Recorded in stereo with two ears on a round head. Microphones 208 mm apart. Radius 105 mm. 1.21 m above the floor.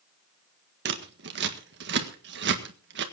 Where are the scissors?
50° right (ahead or behind), 1.7 m.